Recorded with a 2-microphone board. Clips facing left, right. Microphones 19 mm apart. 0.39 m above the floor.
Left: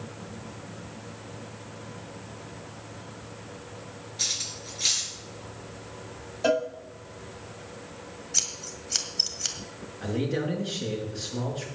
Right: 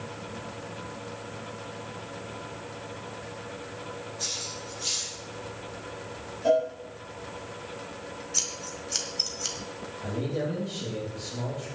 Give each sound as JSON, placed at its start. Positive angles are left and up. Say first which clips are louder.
{"t": 4.2, "sound": "cutlery clinking", "louder": "left 5 dB", "side_deg": 55, "distance_m": 3.5}
{"t": 6.4, "sound": "a cowbell", "louder": "right 2 dB", "side_deg": 60, "distance_m": 2.5}
{"t": 8.3, "sound": "scissors", "louder": "left 2 dB", "side_deg": 15, "distance_m": 1.6}
{"t": 10.0, "sound": "a man speaking", "louder": "left 2 dB", "side_deg": 80, "distance_m": 4.5}